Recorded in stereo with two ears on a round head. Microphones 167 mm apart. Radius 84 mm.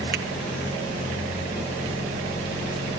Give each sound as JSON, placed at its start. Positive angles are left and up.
{"t": 0.1, "sound": "a finger snap", "side_deg": -55, "distance_m": 1.6}